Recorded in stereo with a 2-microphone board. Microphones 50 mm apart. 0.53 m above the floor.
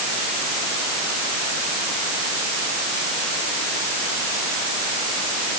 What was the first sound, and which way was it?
Only background noise.